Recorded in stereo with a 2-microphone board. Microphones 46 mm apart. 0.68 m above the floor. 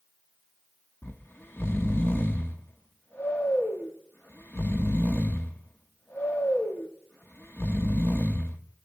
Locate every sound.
1.0 s snoring: 50° left (ahead or behind), 1.0 m